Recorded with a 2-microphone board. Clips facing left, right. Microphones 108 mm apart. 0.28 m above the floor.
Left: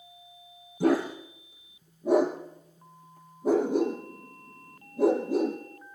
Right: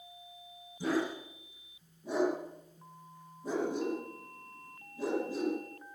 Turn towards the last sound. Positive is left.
turn(degrees=65)  # may be behind; listen again after turning